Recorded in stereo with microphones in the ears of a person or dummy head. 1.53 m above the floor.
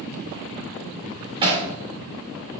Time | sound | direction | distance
1.4 | hammering | 30° right (ahead or behind) | 2.5 m